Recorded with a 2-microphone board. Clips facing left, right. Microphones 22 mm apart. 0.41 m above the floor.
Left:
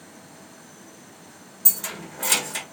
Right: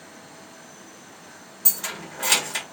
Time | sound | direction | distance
1.6 | keys jangling | 15° right (ahead or behind) | 0.6 m